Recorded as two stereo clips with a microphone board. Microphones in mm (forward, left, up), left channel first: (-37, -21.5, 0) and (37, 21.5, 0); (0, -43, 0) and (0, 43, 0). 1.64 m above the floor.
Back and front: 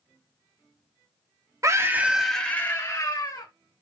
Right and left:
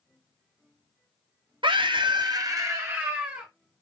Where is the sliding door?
I don't hear a sliding door.